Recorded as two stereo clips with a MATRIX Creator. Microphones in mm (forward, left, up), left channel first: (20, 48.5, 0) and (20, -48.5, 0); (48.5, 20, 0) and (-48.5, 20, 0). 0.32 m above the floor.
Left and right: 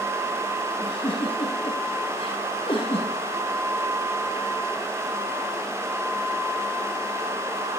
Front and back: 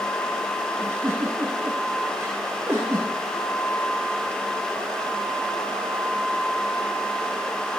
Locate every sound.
0.8 s a giggle: 110° left, 4.5 m